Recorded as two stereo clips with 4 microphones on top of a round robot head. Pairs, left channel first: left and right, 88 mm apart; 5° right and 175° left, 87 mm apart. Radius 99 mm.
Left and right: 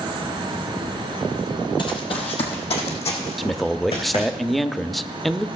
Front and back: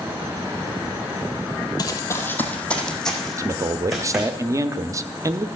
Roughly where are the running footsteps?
Ahead left.